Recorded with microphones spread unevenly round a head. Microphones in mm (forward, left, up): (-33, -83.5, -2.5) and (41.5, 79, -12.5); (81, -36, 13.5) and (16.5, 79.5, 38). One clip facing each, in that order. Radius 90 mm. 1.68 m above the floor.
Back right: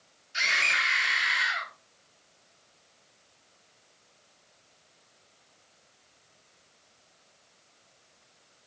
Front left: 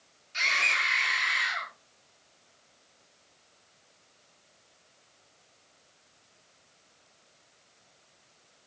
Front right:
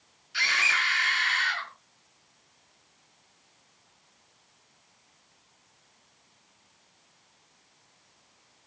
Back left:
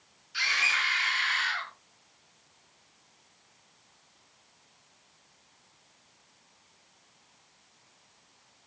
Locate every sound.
0.3 s a scream: 35° right, 5.5 m; by 1.7 s 30° right, 6 m